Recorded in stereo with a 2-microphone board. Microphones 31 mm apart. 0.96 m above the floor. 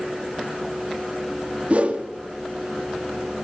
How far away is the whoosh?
About 1.1 m.